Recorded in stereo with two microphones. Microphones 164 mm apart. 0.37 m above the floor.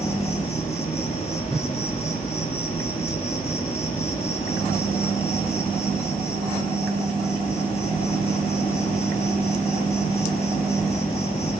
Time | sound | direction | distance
0.0 | an insect | 40° left (ahead or behind) | 4.5 m
1.5 | a whoosh | 5° left (ahead or behind) | 4 m